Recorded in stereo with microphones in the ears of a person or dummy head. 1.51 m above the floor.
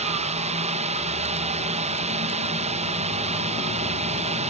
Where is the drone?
30° right (ahead or behind).